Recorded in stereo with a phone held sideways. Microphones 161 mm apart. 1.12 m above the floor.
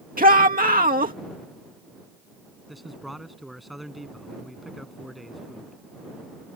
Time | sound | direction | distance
0.2 | a shout | 65° right (ahead or behind) | ?
2.7 | a man speaking | centre (ahead or behind) | ?